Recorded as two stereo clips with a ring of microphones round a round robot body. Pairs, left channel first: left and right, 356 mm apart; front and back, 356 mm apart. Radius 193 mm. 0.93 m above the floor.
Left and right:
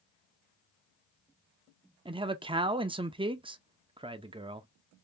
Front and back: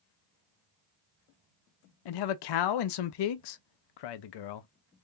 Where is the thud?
I don't hear a thud.